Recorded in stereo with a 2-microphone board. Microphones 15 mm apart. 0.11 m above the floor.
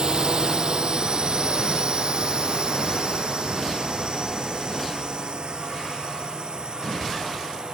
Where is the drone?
65° right (ahead or behind); by 7.8 s 70° right (ahead or behind).